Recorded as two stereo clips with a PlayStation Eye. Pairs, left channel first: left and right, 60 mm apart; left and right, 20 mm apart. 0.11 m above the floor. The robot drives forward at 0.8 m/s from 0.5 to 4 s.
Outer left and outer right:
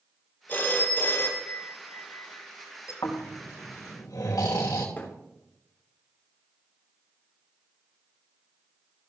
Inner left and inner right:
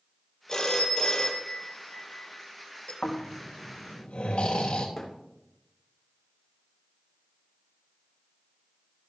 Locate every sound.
0.5 s a phone ringing: 30° left (ahead or behind), 2 m; by 2.9 s 50° left (ahead or behind), 1.5 m
3.0 s snoring: 75° left (ahead or behind), 3.5 m; by 4.9 s 85° left, 3.5 m
5.0 s a thud: 25° left (ahead or behind), 3.5 m